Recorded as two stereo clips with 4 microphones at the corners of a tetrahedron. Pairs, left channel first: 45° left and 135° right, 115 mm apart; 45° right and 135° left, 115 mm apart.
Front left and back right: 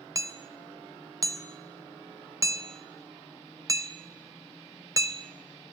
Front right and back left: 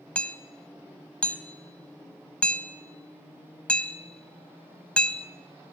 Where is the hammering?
115° right, 0.9 m.